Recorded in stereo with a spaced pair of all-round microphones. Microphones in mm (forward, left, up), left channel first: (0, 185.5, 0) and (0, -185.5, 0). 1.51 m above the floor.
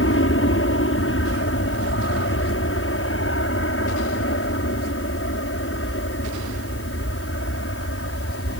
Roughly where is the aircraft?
Left.